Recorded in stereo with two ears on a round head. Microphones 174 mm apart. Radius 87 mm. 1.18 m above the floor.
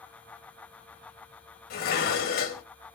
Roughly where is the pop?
No pop in this recording.